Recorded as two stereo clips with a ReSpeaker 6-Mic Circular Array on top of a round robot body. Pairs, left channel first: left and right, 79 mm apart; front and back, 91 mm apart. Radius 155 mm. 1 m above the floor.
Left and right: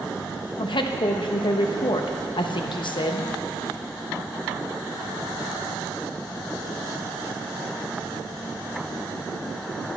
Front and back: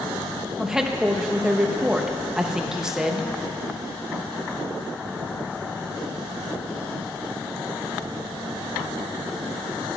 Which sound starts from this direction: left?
A woman speaking, at 0.6 s.